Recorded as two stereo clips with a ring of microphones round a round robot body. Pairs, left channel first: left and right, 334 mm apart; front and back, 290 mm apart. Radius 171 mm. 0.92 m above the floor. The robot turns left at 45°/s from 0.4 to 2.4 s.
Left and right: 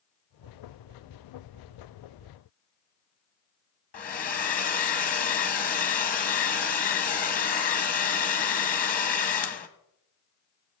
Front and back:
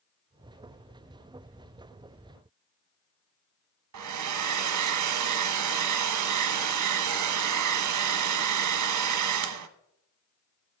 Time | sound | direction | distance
3.9 | a hair dryer | 155° left | 0.9 m